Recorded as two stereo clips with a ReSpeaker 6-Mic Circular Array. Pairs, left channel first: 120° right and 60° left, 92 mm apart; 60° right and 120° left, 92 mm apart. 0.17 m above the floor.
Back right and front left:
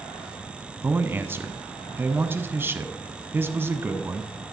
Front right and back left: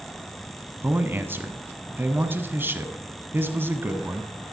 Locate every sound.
0.8 s a man speaking: 85° left, 1.1 m